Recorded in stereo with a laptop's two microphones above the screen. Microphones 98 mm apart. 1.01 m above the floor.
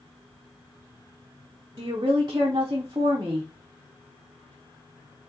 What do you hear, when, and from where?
1.8 s a woman speaking: 40° right (ahead or behind), 0.5 m